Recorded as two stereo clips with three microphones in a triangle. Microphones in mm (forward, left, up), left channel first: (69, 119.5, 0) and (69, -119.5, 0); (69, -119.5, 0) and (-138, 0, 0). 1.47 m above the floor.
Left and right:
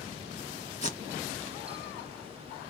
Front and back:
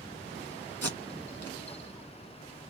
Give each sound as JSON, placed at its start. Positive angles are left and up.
{"t": 0.8, "sound": "tape being pulled", "azimuth_deg": 150, "distance_m": 1.7}